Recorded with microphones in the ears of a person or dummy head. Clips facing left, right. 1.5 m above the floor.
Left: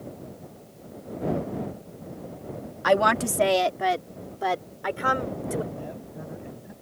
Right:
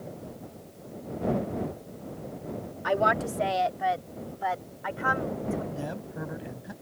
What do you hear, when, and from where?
2.8 s a woman speaking: 65° left (ahead or behind); by 5.6 s 45° left (ahead or behind)
5.7 s a man speaking: 85° right